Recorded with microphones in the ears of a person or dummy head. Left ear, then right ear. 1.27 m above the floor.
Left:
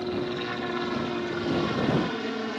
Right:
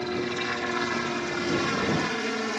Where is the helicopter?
65° right (ahead or behind); by 2.6 s 70° right (ahead or behind).